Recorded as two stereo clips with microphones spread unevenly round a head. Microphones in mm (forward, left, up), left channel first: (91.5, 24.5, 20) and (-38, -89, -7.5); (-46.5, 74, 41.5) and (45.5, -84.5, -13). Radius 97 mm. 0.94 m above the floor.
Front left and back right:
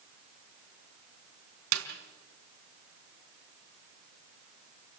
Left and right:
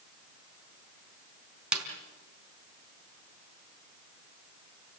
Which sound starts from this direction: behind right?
A snare drum, at 1.7 s.